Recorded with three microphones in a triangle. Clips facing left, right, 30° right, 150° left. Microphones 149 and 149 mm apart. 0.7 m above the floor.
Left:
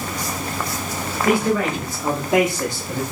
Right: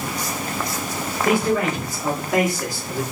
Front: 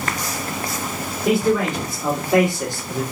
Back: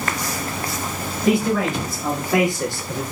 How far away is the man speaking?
About 2.5 m.